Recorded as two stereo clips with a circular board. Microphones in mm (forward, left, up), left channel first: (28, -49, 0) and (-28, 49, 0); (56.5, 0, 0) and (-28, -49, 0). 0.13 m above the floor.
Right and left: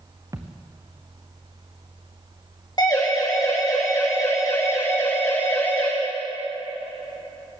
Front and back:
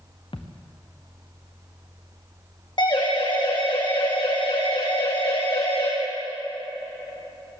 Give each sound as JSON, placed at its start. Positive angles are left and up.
{"t": 0.3, "sound": "a thud", "azimuth_deg": 60, "distance_m": 1.9}
{"t": 2.8, "sound": "a siren", "azimuth_deg": -10, "distance_m": 7.0}